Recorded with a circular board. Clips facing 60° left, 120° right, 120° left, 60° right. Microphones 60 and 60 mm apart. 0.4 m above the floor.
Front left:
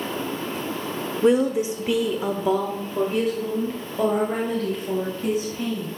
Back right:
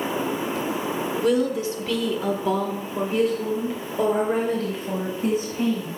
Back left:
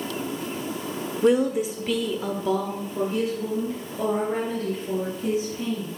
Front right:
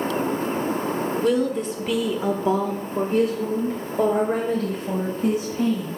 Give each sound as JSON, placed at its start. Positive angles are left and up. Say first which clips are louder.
{"t": 1.2, "sound": "a woman speaking", "louder": "front left 4 dB, back left 3 dB", "azimuth_deg": 95, "distance_m": 0.8}